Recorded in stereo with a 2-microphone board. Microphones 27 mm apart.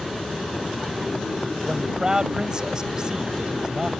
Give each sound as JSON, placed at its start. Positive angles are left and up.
{"t": 1.6, "sound": "a man speaking", "side_deg": -30}